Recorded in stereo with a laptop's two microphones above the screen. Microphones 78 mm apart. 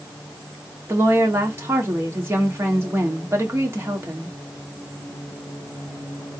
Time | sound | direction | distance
0.9 | a woman speaking | 35° right (ahead or behind) | 1.9 m